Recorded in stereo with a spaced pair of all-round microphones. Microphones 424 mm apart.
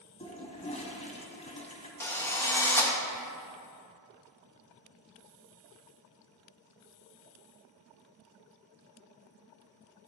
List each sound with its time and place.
0.2 s a toilet flushing: 15° left (ahead or behind), 0.8 m
2.0 s a drill: 5° left (ahead or behind), 0.8 m